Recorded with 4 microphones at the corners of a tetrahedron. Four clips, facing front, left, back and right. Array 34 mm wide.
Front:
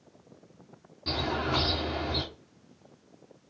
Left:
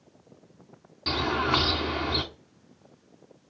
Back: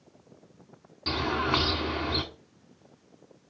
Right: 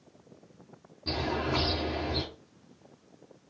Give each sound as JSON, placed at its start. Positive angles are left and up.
{"t": 1.1, "sound": "a bird", "azimuth_deg": 120, "distance_m": 4.0}